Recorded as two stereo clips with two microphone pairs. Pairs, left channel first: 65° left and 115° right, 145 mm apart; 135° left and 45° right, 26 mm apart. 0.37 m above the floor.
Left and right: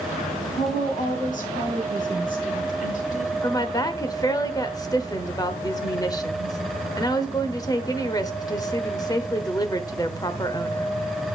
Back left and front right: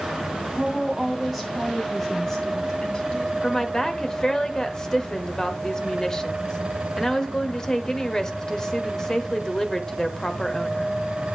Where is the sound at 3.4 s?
100° left, 0.9 m.